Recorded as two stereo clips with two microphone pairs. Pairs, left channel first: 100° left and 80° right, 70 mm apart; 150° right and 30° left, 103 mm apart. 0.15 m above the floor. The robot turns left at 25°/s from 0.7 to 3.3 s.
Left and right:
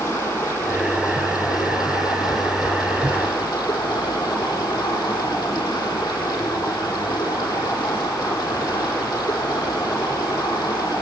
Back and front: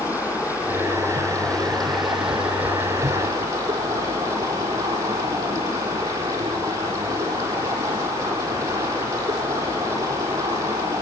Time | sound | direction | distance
0.0 | running water | 155° left | 5 m